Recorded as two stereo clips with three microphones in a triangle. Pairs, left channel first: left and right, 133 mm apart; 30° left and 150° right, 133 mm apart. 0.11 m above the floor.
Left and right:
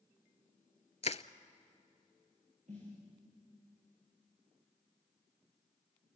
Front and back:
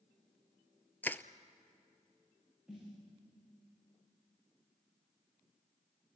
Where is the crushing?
105° left, 0.6 m.